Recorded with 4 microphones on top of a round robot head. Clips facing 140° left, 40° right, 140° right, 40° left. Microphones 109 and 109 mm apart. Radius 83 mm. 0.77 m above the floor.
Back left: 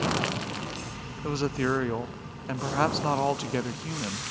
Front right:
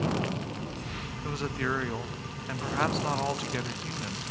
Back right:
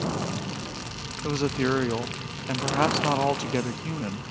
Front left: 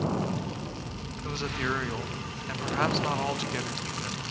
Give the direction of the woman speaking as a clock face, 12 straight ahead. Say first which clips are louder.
Back left 5 dB, back right 7 dB; 6 o'clock.